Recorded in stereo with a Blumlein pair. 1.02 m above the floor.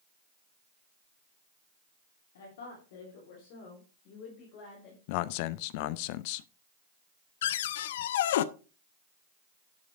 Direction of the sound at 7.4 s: 55° left.